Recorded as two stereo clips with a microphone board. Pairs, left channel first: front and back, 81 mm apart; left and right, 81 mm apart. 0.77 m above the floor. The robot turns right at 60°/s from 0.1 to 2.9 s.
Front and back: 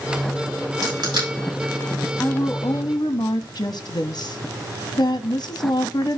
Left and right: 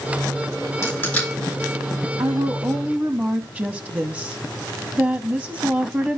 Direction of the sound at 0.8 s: 145° left.